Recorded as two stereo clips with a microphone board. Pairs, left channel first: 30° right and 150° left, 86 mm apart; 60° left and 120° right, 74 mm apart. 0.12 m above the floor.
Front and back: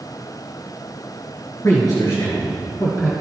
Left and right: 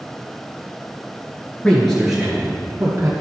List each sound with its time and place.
1.6 s a man speaking: 5° right, 1.8 m; by 3.1 s 65° right, 3 m